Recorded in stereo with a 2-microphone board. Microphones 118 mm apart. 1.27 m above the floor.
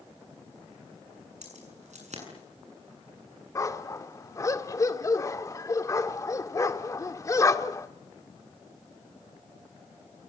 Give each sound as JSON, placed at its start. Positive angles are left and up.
{"t": 1.4, "sound": "keys jangling", "side_deg": -75, "distance_m": 8.0}
{"t": 3.5, "sound": "a dog barking", "side_deg": 25, "distance_m": 1.1}